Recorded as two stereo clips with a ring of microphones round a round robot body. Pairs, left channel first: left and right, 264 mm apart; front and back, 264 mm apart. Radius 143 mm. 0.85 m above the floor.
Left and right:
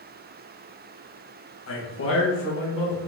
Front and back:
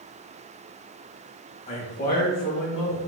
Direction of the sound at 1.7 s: 65° left.